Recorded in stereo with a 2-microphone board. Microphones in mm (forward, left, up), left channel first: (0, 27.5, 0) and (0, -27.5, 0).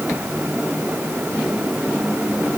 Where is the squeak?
No squeak in this recording.